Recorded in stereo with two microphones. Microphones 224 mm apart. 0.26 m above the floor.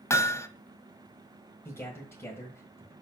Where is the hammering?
15° left (ahead or behind), 0.7 m.